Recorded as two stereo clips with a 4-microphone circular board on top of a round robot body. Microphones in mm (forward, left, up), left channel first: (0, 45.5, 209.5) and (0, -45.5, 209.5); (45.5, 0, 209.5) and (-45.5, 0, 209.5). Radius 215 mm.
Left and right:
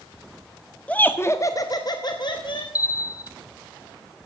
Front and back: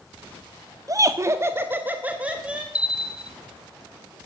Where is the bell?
105° left, 0.9 m.